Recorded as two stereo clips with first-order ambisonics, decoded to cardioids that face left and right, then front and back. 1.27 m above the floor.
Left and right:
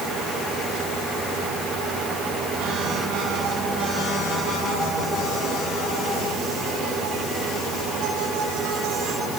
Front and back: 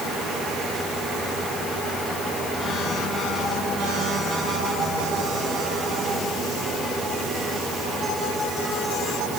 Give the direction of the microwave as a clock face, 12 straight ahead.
I don't hear a microwave.